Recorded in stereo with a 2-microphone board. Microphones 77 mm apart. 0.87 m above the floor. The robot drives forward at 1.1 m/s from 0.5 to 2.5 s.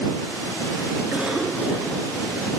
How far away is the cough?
About 2 m.